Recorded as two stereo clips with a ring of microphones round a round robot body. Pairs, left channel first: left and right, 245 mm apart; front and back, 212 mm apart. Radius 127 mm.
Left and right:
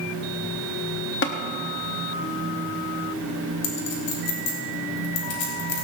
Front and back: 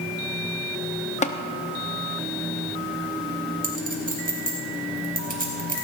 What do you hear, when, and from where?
1.2 s tapping: 55° left, 1.2 m
3.6 s a clink: 135° left, 3.5 m